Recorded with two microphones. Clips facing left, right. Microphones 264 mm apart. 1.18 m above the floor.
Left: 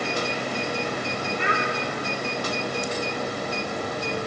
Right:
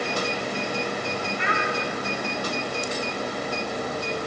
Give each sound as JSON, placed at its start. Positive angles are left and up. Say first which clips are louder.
{"t": 1.4, "sound": "a child speaking", "louder": "left 2 dB", "side_deg": 45, "distance_m": 1.9}